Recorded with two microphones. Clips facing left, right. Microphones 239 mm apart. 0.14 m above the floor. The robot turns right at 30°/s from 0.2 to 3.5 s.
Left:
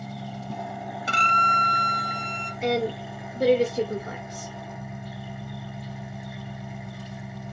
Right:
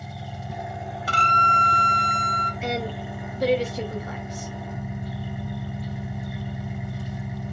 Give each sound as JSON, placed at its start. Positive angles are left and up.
{"t": 0.0, "sound": "an engine running", "azimuth_deg": -175, "distance_m": 1.4}
{"t": 1.1, "sound": "a violin", "azimuth_deg": 140, "distance_m": 0.8}
{"t": 2.6, "sound": "a woman speaking", "side_deg": 45, "distance_m": 2.0}